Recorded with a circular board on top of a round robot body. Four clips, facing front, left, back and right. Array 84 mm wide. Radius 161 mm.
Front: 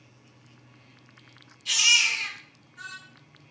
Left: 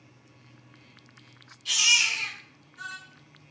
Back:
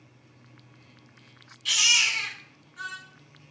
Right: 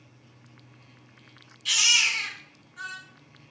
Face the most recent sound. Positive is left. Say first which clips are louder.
# right 1 dB, front 1 dB
turn(degrees=-145)